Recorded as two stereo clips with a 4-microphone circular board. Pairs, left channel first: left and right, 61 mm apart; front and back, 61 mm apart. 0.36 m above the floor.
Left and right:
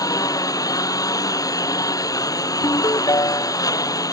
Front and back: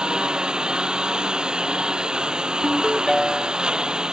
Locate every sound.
0.0 s a lawn mower: 100° left
2.6 s a ringtone: 85° left